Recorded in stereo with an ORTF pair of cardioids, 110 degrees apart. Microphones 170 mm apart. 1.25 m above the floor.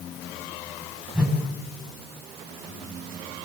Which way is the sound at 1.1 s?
5° right.